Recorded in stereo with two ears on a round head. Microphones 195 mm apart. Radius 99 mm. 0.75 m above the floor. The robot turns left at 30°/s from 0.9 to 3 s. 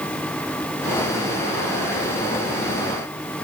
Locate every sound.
Only background noise.